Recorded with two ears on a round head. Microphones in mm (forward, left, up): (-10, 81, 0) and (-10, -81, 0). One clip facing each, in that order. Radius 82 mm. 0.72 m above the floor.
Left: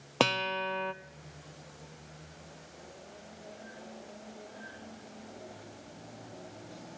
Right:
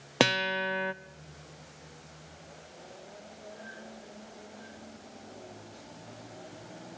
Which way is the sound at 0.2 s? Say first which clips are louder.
Right 2 dB; 15° right (ahead or behind).